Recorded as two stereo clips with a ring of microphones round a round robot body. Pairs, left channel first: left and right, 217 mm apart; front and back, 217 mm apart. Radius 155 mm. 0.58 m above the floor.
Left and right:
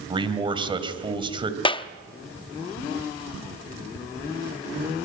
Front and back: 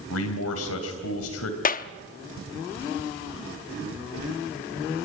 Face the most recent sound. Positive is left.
turn(degrees=30)